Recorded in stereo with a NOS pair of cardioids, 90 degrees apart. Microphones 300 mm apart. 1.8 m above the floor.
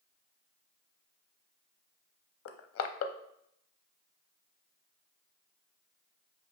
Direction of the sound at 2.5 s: 45° left.